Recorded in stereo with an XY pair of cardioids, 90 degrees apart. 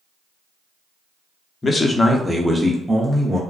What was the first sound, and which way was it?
A man speaking, 35° left.